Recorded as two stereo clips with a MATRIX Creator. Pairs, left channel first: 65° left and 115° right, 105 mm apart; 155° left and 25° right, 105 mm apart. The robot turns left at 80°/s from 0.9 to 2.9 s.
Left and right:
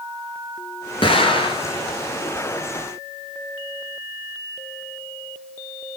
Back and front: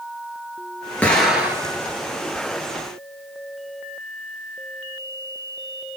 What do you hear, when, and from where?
1.0 s an explosion: 85° left, 1.2 m; by 1.8 s 25° left, 1.2 m